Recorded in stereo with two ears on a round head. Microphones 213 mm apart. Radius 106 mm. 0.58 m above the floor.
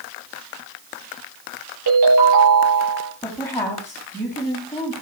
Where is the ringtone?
85° right, 8.5 m.